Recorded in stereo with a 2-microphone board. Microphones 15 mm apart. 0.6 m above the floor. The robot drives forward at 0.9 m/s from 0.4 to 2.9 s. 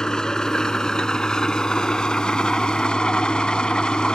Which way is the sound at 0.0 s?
45° left (ahead or behind).